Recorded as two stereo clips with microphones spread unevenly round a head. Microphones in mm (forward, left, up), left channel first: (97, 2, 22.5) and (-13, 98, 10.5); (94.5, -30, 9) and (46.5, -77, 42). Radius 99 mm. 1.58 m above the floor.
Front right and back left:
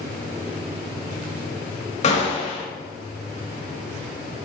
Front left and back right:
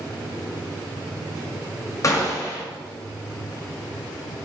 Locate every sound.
2.0 s a gunshot: straight ahead, 2.5 m